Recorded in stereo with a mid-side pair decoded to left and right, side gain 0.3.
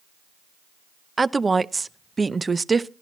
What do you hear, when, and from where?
1.2 s a woman speaking: 35° right, 0.5 m